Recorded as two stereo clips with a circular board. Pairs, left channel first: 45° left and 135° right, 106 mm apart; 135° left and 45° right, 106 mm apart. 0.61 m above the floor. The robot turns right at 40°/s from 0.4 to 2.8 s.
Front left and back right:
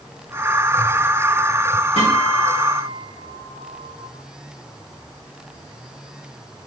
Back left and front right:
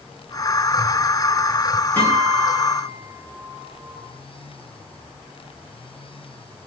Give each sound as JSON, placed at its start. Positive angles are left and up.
{"t": 2.0, "sound": "a guitar", "azimuth_deg": 60, "distance_m": 4.5}